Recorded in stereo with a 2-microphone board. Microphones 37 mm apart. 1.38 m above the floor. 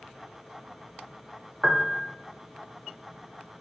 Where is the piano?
20° right (ahead or behind), 0.6 m.